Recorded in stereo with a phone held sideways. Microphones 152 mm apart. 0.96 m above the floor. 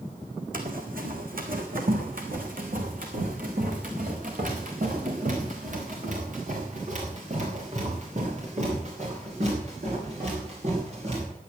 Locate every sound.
0.5 s running footsteps: 70° right (ahead or behind), 2.5 m; by 11.2 s 45° right (ahead or behind), 8 m